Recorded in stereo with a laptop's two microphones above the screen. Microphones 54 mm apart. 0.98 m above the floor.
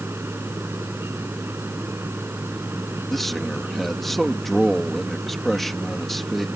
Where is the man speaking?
5° left (ahead or behind).